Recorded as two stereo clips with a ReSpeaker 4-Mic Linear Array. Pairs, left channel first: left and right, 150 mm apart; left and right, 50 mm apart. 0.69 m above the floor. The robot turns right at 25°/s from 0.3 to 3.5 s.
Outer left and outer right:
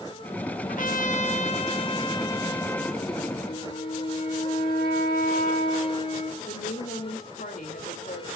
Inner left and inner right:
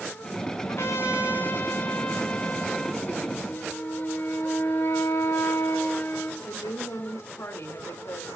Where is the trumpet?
115° left, 1.1 m; by 3.0 s 175° left, 1.1 m.